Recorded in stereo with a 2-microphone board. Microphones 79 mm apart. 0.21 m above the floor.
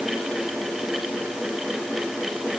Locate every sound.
Only background noise.